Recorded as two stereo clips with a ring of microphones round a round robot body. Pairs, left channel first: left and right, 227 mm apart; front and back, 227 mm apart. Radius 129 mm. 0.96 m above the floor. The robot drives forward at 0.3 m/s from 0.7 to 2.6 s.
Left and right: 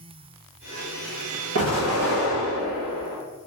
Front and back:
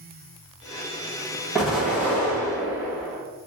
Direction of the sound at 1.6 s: 90° right.